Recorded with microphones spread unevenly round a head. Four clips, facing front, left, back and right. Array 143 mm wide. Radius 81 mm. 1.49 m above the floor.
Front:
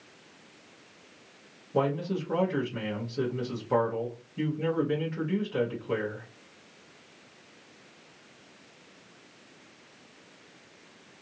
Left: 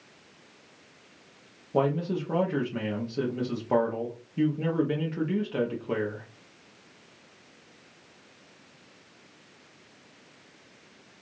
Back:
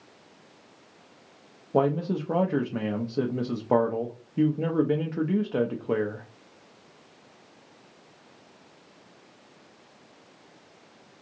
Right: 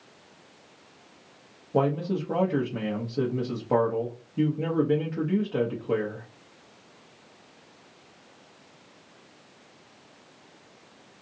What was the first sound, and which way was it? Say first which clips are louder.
A man speaking: right 1 dB, back 4 dB; 165° right.